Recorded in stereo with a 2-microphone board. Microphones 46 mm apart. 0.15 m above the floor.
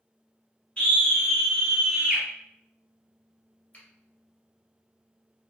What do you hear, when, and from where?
0.8 s a scream: 25° left (ahead or behind), 1.5 m; by 2.2 s 25° right (ahead or behind), 1.6 m
3.7 s a finger snap: 30° left (ahead or behind), 1.7 m